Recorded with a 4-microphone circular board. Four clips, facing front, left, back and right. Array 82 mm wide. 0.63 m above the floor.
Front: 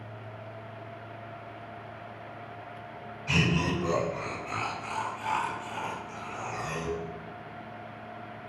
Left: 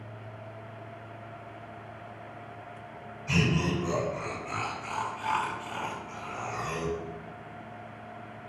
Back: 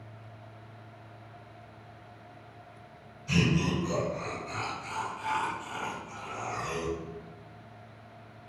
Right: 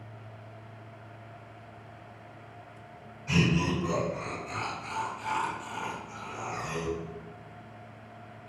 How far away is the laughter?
About 1.8 m.